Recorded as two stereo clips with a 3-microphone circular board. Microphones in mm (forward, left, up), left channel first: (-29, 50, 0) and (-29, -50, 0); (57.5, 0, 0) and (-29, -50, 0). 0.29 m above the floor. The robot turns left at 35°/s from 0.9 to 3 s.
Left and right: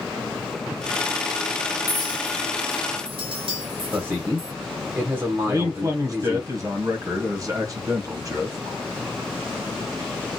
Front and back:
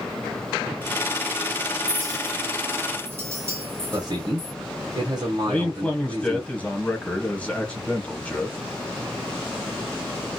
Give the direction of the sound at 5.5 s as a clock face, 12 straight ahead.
2 o'clock.